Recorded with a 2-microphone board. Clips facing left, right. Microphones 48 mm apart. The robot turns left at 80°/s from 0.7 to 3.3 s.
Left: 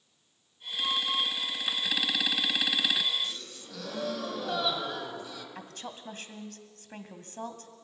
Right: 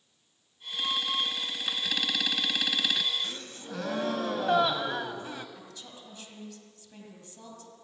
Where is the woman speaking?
55° left (ahead or behind), 2 m.